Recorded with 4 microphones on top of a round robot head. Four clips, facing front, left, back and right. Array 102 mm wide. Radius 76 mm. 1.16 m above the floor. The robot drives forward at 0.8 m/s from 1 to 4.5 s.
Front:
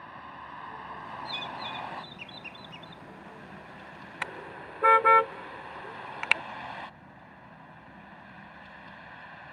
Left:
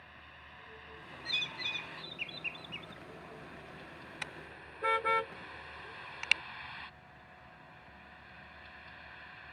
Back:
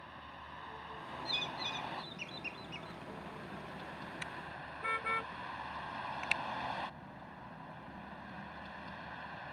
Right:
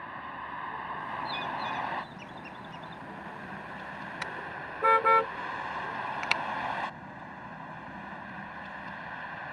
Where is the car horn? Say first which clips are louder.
Right 9 dB, front 6 dB; 25° right.